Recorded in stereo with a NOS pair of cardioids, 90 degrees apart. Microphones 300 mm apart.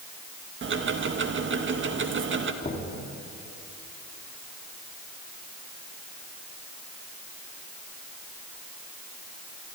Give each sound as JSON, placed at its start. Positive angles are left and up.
{"t": 0.6, "sound": "ticking", "azimuth_deg": -40, "distance_m": 1.8}
{"t": 2.6, "sound": "knocking", "azimuth_deg": 30, "distance_m": 4.0}